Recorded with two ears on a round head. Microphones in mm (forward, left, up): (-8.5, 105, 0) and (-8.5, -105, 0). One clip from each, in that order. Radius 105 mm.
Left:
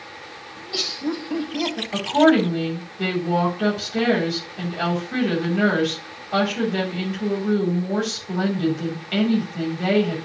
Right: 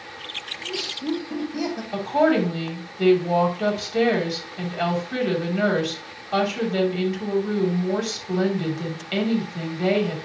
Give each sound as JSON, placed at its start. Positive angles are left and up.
{"t": 0.6, "sound": "laughter", "side_deg": 35, "distance_m": 2.5}
{"t": 1.9, "sound": "a woman speaking", "side_deg": -15, "distance_m": 3.0}